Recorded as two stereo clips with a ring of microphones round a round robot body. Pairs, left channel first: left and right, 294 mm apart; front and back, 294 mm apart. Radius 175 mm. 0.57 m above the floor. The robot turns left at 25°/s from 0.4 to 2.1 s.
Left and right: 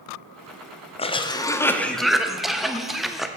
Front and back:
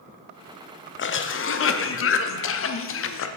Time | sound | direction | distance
1.0 | a cough | 25° left | 0.7 m